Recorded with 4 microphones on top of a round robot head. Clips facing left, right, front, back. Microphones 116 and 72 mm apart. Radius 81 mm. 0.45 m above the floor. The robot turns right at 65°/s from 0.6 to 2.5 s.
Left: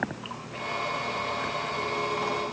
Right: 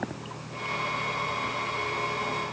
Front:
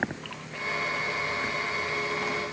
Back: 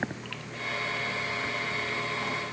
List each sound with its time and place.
Only background noise.